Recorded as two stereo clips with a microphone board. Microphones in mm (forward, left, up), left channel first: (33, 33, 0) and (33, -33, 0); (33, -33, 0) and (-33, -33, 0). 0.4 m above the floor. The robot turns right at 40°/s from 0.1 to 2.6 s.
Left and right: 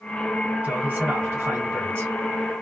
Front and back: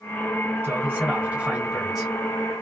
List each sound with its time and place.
0.6 s a man speaking: 145° right, 1.9 m; by 2.1 s 85° right, 1.9 m